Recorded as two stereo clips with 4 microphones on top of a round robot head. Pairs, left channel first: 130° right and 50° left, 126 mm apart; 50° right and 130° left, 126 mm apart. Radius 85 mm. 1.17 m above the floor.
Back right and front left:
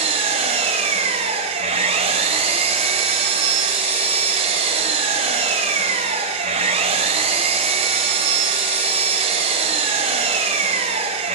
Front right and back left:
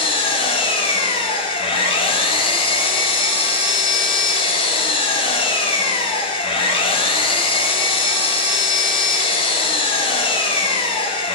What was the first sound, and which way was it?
An engine running, straight ahead.